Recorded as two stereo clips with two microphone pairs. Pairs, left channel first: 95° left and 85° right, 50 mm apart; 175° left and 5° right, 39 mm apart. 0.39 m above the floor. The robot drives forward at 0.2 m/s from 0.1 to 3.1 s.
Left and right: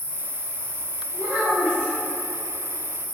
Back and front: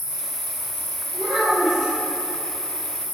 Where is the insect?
80° right, 0.7 m; by 3.1 s 130° right, 0.9 m.